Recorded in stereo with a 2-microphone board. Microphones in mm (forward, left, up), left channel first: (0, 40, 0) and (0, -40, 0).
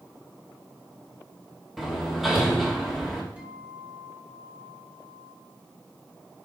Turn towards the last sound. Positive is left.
turn(degrees=-20)  # may be behind; listen again after turning